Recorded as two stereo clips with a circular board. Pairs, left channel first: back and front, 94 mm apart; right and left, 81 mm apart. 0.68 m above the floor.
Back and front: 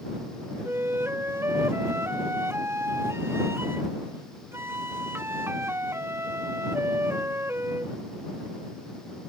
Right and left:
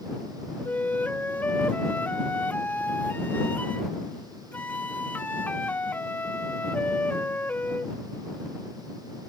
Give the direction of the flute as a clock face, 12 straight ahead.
1 o'clock.